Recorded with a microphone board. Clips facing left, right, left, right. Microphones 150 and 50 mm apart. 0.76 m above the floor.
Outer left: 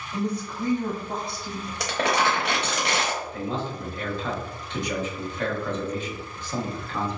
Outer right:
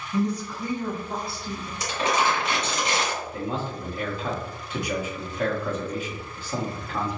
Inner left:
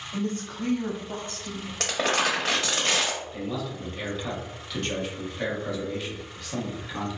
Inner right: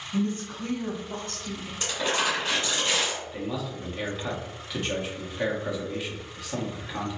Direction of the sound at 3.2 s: 10° right (ahead or behind).